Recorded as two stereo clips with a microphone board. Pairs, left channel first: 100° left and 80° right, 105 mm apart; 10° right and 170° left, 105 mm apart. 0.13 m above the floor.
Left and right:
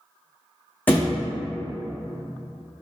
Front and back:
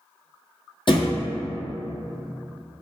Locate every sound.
0.9 s a thud: 25° left, 0.9 m